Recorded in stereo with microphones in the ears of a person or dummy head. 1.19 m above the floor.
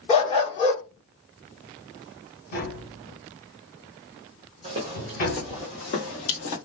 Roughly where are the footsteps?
Right.